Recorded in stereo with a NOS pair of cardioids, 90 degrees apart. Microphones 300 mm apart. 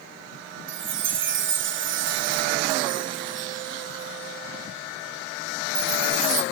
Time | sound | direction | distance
0.7 | a chime | 40° right | 0.5 m